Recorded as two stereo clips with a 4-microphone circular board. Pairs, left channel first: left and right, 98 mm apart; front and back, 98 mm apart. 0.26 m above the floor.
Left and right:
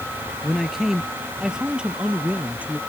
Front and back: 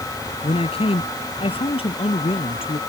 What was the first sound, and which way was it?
A man speaking, straight ahead.